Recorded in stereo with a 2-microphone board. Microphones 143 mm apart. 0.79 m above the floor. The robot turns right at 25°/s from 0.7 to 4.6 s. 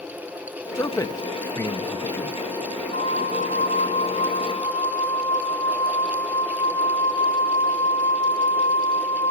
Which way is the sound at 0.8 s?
25° left (ahead or behind).